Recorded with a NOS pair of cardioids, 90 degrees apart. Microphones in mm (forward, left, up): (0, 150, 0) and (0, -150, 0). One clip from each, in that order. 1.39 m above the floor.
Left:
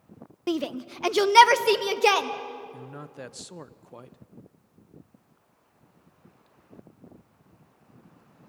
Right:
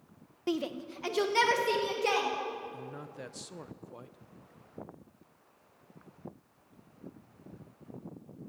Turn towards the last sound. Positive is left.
turn(degrees=20)